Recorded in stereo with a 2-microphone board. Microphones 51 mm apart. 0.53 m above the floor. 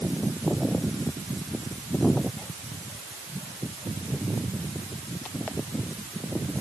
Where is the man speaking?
I don't hear a man speaking.